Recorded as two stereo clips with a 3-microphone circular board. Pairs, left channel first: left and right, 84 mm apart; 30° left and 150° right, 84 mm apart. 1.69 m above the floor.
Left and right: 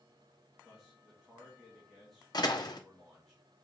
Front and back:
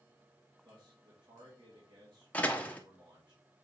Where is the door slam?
100° left, 1.2 m.